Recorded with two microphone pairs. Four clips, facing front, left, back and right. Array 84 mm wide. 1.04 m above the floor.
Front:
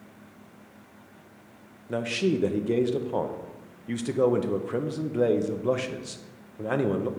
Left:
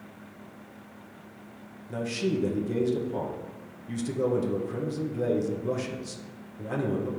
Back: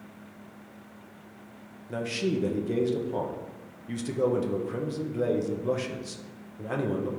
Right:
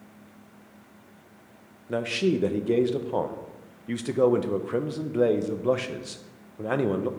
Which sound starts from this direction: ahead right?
A man speaking, at 1.9 s.